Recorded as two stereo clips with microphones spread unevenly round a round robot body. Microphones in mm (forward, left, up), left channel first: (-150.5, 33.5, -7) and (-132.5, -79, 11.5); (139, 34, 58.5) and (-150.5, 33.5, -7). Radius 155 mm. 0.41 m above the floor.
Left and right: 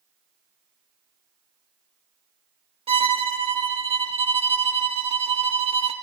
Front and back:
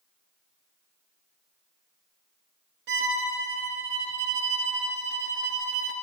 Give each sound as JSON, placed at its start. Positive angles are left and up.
{"t": 2.9, "sound": "a violin", "azimuth_deg": -120, "distance_m": 0.7}